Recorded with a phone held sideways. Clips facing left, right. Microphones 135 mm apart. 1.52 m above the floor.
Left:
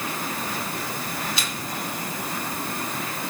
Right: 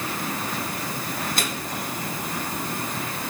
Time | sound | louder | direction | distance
1.4 | a microwave | right 2 dB | 50° right (ahead or behind) | 3.5 m